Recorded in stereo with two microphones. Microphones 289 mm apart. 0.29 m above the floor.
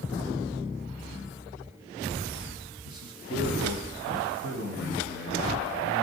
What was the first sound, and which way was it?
A man speaking, 50° left (ahead or behind).